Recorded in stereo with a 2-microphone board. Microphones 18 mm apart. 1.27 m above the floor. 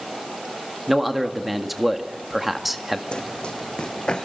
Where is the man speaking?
10° right (ahead or behind), 1.8 m.